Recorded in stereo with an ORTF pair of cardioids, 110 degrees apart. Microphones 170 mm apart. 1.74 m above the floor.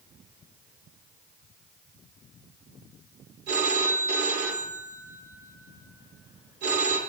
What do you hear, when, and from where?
3.5 s a phone ringing: 65° right, 3.5 m